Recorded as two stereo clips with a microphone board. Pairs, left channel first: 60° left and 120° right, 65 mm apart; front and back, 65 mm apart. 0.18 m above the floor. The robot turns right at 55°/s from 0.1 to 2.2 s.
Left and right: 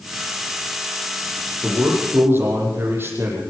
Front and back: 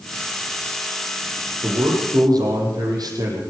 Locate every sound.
1.6 s a man speaking: 155° left, 6.5 m; by 3.4 s 175° right, 6.5 m